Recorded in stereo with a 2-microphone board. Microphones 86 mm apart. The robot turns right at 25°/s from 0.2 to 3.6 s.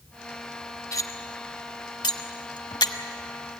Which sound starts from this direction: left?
Cutlery clinking, at 0.9 s.